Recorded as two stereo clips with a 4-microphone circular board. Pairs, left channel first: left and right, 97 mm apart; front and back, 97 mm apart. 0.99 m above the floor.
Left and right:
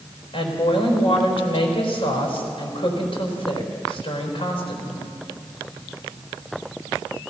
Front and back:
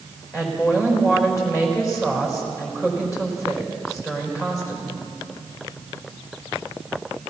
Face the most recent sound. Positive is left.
turn(degrees=60)